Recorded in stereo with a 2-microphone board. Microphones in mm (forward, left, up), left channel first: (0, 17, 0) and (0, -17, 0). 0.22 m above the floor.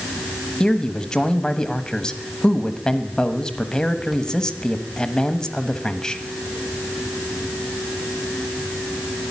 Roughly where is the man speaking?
Left.